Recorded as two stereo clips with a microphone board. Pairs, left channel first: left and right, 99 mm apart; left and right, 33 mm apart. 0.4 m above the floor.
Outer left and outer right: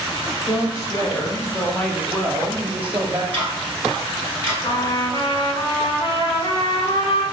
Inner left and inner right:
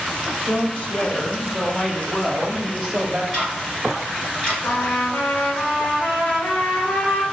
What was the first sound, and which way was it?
A woman speaking, 50° left (ahead or behind).